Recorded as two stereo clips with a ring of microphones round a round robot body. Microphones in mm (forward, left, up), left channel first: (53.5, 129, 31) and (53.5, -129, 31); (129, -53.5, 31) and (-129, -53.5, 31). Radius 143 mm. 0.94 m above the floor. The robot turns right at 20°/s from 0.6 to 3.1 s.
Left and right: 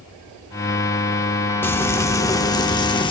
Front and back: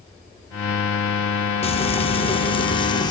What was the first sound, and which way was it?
Frying, 20° left.